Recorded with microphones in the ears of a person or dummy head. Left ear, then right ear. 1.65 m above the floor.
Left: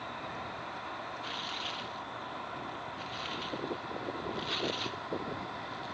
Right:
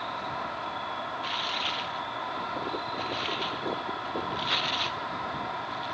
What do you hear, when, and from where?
0.0 s an insect: 85° right
1.2 s tearing paper: 25° right (ahead or behind)